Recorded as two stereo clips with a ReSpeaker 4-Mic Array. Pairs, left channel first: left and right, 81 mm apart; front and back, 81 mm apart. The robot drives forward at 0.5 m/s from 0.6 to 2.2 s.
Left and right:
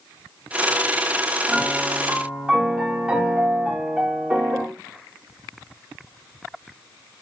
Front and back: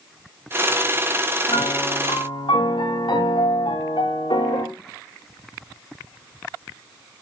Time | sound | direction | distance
1.5 | a piano | 15° right | 8.5 m